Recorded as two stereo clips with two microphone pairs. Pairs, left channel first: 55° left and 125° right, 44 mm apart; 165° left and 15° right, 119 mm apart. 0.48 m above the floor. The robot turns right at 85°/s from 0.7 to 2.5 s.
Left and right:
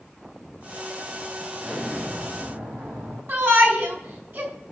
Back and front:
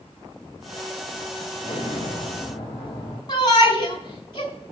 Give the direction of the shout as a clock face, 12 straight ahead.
5 o'clock.